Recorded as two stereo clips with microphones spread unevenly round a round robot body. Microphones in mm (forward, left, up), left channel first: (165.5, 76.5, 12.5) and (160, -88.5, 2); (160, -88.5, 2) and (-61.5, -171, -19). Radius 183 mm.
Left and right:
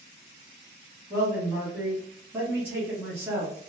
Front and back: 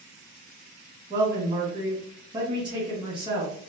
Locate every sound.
1.1 s a man speaking: 145° right, 0.8 m